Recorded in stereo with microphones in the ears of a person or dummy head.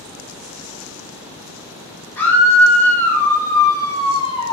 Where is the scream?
10° left (ahead or behind), 4.5 m; by 4.5 s 30° left (ahead or behind), 1.8 m.